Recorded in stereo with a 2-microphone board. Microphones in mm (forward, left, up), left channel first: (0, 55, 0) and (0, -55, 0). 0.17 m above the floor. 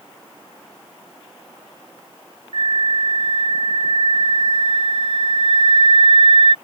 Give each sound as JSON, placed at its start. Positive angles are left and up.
{"t": 2.5, "sound": "a flute", "side_deg": -60}